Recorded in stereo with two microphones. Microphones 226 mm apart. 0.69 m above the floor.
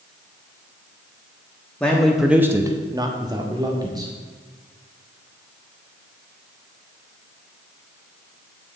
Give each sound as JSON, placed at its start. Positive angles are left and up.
{"t": 1.8, "sound": "a man speaking", "side_deg": 5, "distance_m": 1.3}